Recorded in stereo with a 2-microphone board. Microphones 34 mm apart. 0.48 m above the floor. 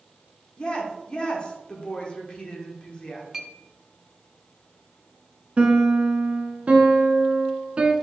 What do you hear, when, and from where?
0.6 s a woman speaking: 30° left (ahead or behind), 0.9 m
3.3 s a clink: 10° right (ahead or behind), 0.6 m
5.6 s a piano: 35° right (ahead or behind), 0.7 m